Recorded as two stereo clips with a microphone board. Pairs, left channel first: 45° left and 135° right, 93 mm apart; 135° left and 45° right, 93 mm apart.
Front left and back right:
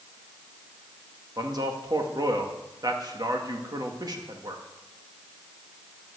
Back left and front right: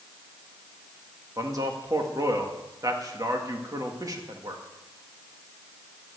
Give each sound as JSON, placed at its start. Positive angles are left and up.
{"t": 1.4, "sound": "a man speaking", "azimuth_deg": -95, "distance_m": 2.0}